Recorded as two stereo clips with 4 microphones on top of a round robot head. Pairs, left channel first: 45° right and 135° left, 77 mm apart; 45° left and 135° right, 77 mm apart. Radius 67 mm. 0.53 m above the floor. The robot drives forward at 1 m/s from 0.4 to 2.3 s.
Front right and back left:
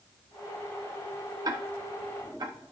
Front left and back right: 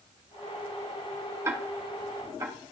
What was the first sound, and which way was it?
Ticking, 170° left.